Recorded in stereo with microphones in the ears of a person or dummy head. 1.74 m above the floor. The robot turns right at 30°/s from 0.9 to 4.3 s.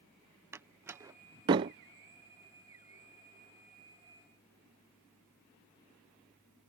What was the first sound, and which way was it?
A door slam, 10° right (ahead or behind).